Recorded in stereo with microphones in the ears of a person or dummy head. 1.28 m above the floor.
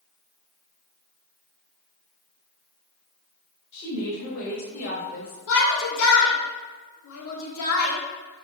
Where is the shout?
75° left (ahead or behind), 1.1 m.